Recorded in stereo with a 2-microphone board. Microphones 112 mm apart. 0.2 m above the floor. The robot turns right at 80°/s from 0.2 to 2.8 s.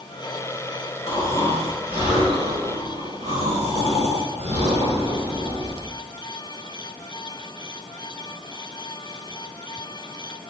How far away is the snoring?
About 2 m.